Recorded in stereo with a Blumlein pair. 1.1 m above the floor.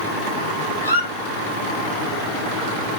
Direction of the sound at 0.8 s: 70° left.